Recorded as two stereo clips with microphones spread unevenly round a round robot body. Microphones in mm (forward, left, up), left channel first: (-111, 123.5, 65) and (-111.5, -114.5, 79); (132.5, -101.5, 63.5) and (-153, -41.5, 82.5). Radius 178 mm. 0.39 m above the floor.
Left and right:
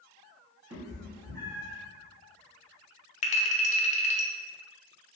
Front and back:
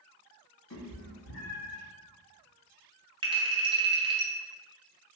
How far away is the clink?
About 0.6 m.